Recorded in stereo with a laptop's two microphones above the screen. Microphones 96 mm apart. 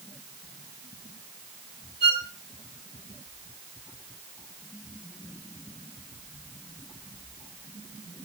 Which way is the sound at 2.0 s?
65° left (ahead or behind).